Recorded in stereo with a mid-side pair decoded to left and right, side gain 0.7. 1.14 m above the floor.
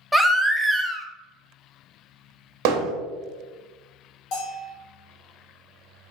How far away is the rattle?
I don't hear a rattle.